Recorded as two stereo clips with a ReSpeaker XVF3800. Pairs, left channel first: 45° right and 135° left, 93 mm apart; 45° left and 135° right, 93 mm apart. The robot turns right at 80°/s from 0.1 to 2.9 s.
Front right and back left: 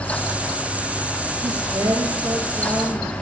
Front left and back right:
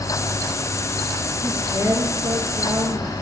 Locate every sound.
1.4 s a woman speaking: 145° left, 2 m; by 3.1 s 100° right, 2 m